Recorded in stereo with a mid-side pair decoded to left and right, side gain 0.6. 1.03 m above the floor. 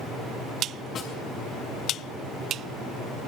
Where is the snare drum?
50° left, 6 m.